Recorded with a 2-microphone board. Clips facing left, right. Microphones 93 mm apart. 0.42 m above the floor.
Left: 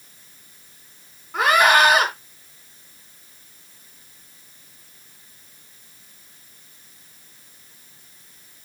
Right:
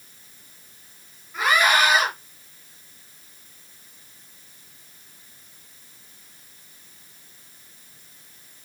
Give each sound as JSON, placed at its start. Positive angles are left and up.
{"t": 1.3, "sound": "a scream", "side_deg": 70, "distance_m": 5.0}